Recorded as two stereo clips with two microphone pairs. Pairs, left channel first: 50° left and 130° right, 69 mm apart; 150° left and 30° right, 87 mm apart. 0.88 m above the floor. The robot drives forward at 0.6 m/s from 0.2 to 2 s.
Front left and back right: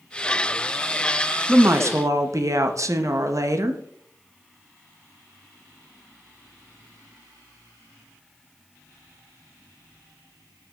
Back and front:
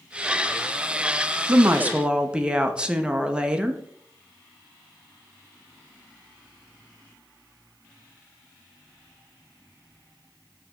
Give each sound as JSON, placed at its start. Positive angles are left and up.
{"t": 1.5, "sound": "a woman speaking", "azimuth_deg": -80, "distance_m": 0.7}